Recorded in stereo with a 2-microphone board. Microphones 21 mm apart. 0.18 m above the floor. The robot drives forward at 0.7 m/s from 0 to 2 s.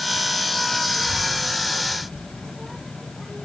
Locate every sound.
0.9 s a child speaking: 25° right (ahead or behind), 5 m